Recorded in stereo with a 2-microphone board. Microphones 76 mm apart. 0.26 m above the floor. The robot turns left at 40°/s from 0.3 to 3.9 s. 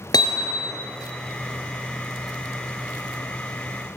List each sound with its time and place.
0.1 s hammering: 60° left (ahead or behind), 2.5 m; by 0.8 s 40° left (ahead or behind), 2.5 m